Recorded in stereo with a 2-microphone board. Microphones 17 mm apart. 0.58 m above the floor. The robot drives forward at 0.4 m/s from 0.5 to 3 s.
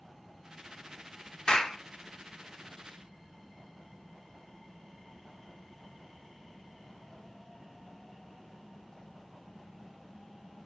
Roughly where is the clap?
Left.